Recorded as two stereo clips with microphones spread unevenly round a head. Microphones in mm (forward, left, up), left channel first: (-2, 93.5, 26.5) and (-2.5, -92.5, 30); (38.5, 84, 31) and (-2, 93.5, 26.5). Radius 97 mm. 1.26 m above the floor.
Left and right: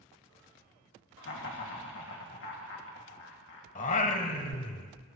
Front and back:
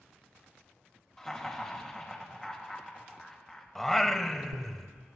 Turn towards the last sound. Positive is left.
turn(degrees=60)